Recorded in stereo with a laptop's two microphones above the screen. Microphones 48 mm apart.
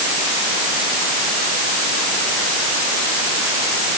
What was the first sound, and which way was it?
Only background noise.